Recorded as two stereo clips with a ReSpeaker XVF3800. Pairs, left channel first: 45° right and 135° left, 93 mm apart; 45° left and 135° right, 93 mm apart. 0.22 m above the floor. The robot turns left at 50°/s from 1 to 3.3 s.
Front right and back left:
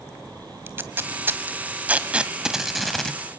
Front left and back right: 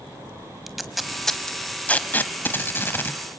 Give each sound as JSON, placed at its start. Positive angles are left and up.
{"t": 0.7, "sound": "tape being pulled", "azimuth_deg": 135, "distance_m": 1.1}